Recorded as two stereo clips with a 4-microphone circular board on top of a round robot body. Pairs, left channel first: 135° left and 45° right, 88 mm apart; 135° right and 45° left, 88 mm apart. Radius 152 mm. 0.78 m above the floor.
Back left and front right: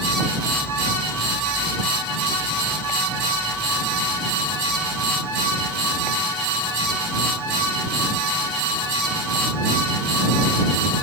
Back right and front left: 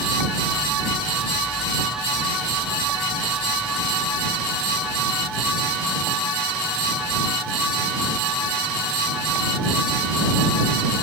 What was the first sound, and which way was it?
Only background noise.